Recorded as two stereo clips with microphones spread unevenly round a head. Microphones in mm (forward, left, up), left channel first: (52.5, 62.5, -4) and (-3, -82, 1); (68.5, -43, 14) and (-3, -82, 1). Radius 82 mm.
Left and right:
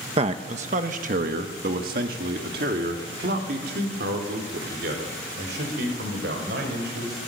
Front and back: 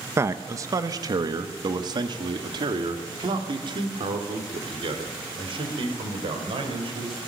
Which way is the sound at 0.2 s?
145° right.